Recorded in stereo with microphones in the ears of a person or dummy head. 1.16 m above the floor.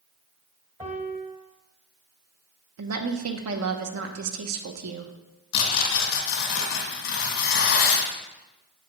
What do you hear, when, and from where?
0.8 s a piano: 10° right (ahead or behind), 1.0 m
2.8 s a woman speaking: 65° right (ahead or behind), 1.0 m
5.5 s tearing paper: 55° left (ahead or behind), 2 m